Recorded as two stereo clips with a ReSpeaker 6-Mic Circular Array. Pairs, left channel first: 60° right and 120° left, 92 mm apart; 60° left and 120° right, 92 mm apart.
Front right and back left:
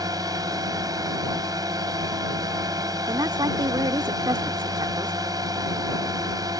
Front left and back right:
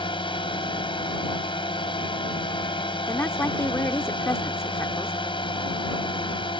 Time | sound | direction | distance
0.0 | a drone | 75° left | ?
3.1 | a woman speaking | 115° left | ?